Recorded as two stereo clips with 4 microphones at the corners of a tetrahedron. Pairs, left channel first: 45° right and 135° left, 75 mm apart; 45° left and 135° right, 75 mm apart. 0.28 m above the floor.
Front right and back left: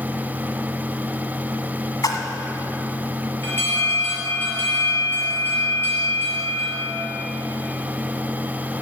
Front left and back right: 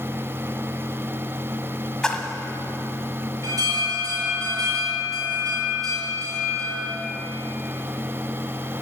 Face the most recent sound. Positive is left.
turn(degrees=-100)